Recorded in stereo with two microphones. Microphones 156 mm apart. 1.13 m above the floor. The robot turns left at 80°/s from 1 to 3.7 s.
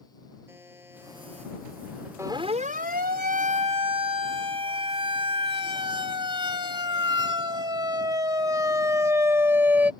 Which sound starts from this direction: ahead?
A buzzer, at 0.5 s.